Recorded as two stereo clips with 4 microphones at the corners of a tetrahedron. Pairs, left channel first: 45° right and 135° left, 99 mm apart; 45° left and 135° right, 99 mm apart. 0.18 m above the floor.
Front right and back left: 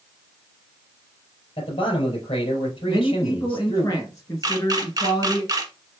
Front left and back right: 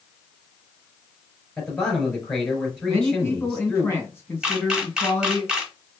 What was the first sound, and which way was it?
A man speaking, 25° right.